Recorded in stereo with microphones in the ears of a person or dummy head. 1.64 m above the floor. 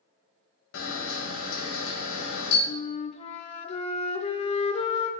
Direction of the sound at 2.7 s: 35° left (ahead or behind).